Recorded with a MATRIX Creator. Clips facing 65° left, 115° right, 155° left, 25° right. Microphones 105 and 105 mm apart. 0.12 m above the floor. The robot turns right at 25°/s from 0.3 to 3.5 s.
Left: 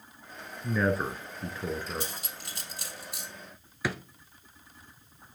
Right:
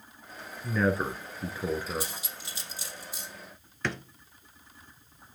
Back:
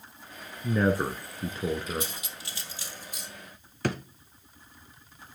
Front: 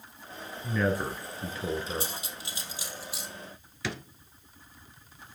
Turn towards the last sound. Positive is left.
turn(degrees=150)